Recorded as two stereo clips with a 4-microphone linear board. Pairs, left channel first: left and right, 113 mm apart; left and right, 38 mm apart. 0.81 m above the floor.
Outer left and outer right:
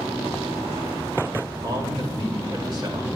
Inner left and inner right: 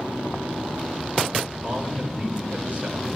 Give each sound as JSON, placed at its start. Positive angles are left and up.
{"t": 1.6, "sound": "a man speaking", "side_deg": -40, "distance_m": 2.0}